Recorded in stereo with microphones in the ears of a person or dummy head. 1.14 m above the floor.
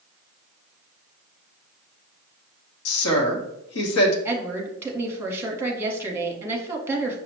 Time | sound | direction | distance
2.9 | a woman speaking | 75° left (ahead or behind) | 1.1 m
4.2 | a woman speaking | 15° right (ahead or behind) | 0.8 m